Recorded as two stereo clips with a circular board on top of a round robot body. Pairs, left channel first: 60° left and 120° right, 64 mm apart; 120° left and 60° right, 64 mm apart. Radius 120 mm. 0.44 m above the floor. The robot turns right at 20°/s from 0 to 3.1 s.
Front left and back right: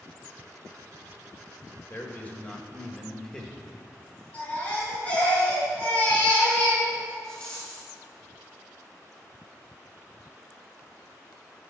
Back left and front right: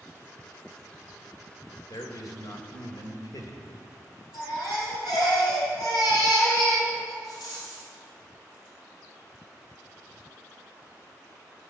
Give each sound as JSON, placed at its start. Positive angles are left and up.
{"t": 1.9, "sound": "a man speaking", "azimuth_deg": 115, "distance_m": 1.9}
{"t": 4.3, "sound": "a baby crying", "azimuth_deg": 125, "distance_m": 4.5}
{"t": 7.2, "sound": "a rattle", "azimuth_deg": 130, "distance_m": 5.0}